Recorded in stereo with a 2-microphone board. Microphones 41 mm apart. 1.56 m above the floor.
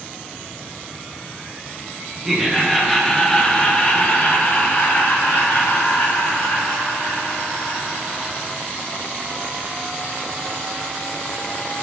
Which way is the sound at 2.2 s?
10° right (ahead or behind).